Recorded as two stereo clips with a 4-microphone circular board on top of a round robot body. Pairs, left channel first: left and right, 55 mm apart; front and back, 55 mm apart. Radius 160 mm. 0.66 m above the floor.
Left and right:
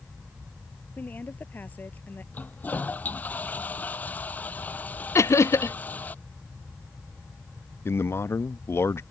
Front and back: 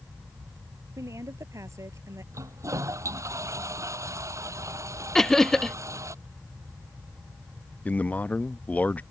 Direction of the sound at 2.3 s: 150° left.